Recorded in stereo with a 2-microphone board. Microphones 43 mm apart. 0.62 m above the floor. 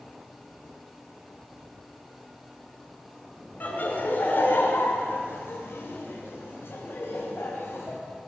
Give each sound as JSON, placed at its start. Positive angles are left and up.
{"t": 3.6, "sound": "laughter", "side_deg": 45, "distance_m": 2.5}